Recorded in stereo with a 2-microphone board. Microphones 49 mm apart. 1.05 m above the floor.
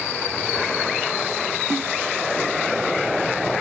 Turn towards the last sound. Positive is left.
turn(degrees=-60)  # may be behind; listen again after turning